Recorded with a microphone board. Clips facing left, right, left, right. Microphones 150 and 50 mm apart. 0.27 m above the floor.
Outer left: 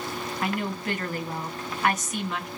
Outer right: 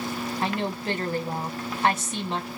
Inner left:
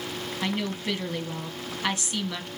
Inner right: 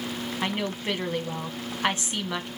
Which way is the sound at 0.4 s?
30° right (ahead or behind).